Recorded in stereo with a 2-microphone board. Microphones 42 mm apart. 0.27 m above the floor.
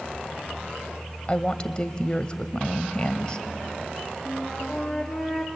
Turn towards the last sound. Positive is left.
turn(degrees=5)  # may be behind; listen again after turning